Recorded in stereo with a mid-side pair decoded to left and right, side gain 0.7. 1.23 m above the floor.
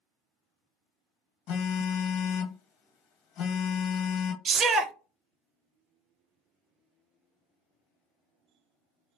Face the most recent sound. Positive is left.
turn(degrees=-35)